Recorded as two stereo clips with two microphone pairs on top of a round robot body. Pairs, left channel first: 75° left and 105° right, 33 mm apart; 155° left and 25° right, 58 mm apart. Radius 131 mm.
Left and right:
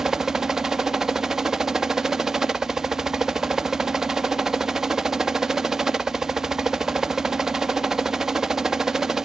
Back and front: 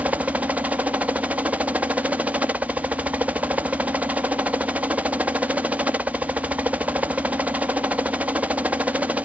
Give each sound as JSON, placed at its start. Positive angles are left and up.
{"t": 0.0, "sound": "a helicopter", "azimuth_deg": -50}